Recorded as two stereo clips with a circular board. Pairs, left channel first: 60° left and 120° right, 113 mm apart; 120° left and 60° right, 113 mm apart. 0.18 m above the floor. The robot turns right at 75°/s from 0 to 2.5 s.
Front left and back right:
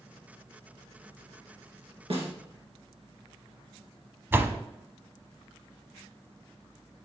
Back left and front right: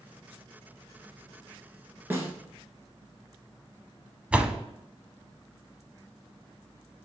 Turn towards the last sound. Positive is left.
turn(degrees=-115)